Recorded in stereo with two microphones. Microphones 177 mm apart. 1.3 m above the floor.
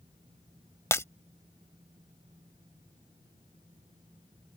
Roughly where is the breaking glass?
Centre.